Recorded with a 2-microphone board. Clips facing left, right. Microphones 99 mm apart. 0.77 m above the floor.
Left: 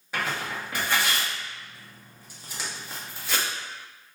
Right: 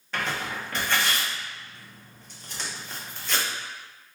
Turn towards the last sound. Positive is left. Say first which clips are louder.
# even
turn(degrees=10)  # may be behind; listen again after turning